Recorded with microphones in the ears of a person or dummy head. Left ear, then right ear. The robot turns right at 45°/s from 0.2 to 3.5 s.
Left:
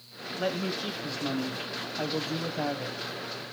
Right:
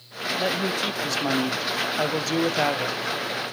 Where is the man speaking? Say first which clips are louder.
Right 5 dB; 165° right, 0.8 m; by 3.0 s 50° right, 0.8 m.